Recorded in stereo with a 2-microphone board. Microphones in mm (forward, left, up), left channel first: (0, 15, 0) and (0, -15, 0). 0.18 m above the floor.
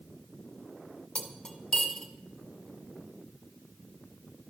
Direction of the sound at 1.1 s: 25° left (ahead or behind).